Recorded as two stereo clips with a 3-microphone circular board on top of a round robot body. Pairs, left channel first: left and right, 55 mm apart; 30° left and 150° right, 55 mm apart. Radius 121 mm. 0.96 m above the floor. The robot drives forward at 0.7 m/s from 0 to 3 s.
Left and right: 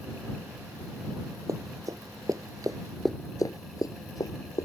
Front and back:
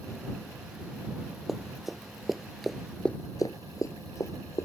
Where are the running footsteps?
65° right; by 4.7 s 70° left.